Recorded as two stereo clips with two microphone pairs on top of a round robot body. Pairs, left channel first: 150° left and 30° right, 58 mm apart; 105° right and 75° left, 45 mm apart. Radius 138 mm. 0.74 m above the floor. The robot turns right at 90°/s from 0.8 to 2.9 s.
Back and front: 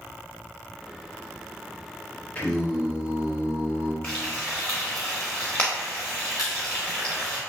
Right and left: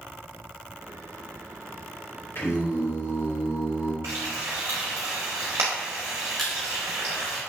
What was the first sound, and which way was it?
Singing, 155° right.